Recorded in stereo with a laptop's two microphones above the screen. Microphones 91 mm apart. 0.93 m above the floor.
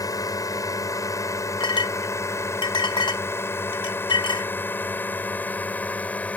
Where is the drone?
40° left (ahead or behind); by 6.4 s 15° left (ahead or behind).